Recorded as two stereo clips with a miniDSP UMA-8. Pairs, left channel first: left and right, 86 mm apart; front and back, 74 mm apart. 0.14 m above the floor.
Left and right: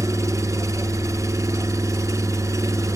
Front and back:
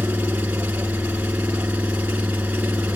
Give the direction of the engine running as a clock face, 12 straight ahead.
4 o'clock.